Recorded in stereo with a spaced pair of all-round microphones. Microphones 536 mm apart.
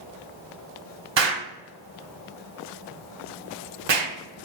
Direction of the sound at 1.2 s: 55° right (ahead or behind).